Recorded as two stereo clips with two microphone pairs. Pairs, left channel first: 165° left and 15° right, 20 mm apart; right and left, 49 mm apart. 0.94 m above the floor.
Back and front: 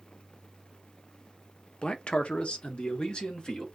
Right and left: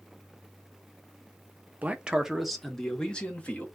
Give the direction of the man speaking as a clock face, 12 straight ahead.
7 o'clock.